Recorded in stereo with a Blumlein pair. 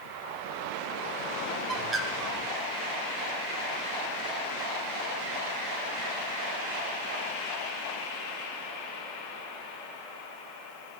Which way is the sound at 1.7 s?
20° right.